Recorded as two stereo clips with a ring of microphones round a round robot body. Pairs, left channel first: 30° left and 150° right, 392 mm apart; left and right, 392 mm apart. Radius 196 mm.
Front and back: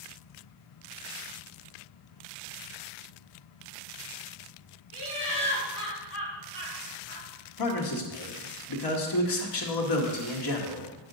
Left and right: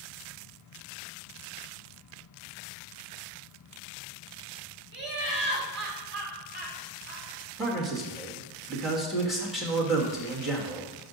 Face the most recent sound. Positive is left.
turn(degrees=0)